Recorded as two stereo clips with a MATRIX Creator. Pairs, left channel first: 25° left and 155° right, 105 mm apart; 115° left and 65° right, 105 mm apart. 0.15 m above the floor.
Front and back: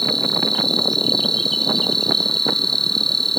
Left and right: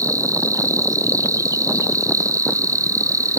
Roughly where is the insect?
Ahead right.